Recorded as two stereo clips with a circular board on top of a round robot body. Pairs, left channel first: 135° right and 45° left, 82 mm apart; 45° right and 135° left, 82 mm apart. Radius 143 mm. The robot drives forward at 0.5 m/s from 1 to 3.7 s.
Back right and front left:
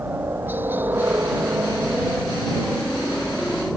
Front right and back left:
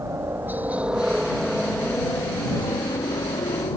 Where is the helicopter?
95° left; by 3.8 s 45° right.